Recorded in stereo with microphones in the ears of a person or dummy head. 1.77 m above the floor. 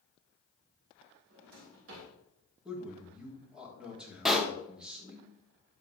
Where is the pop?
5° right (ahead or behind), 1.3 m.